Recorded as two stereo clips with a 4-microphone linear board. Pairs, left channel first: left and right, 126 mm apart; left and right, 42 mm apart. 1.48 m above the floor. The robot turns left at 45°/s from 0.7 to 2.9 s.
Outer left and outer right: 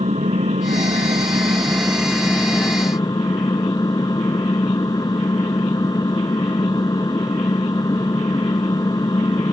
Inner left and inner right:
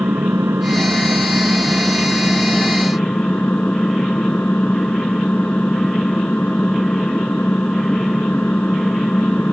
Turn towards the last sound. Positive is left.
turn(degrees=145)